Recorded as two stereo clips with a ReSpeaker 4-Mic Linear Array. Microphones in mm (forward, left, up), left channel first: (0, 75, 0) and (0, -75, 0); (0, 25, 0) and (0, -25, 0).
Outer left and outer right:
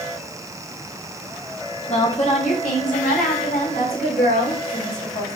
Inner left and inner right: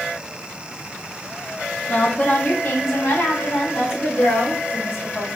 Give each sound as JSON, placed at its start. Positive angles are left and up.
{"t": 1.9, "sound": "a woman speaking", "side_deg": 40, "distance_m": 1.3}